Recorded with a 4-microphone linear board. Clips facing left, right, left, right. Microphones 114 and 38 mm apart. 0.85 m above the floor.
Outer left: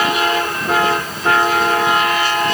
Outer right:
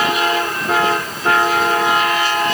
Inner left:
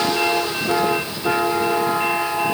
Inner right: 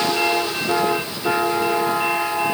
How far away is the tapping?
I don't hear tapping.